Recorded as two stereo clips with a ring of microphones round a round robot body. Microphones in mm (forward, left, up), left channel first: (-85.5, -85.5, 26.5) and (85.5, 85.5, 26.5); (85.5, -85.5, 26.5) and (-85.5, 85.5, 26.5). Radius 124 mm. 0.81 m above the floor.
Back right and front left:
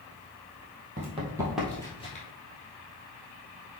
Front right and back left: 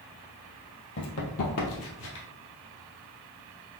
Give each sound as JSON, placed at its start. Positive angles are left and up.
{"t": 1.0, "sound": "running footsteps", "azimuth_deg": -10, "distance_m": 1.4}